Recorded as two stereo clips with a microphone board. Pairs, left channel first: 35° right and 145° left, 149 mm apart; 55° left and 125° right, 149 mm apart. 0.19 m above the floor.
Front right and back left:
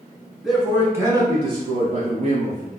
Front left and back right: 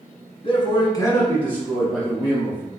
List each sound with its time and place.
0.4 s a man speaking: 55° left, 1.4 m; by 2.7 s 160° left, 2 m